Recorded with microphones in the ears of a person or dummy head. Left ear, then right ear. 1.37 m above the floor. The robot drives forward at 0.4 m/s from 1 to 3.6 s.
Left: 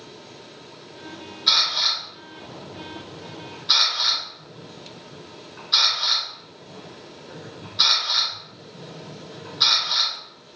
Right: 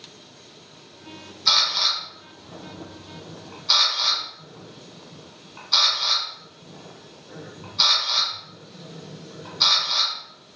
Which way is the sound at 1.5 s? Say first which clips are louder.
Even; 50° right (ahead or behind).